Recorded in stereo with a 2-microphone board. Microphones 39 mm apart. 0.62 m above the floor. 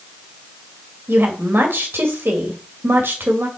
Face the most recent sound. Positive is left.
turn(degrees=-70)  # may be behind; listen again after turning